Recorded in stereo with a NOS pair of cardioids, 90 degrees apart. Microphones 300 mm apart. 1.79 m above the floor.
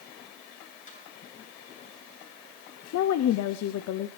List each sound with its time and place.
0.9 s a snare drum: 25° left, 9 m
2.9 s a woman speaking: 65° left, 0.8 m